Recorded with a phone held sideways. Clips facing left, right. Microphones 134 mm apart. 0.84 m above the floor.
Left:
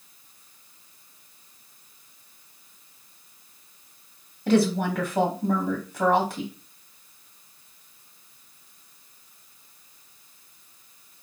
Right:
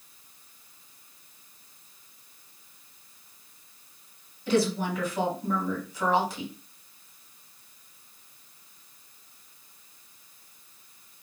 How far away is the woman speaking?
About 1.6 m.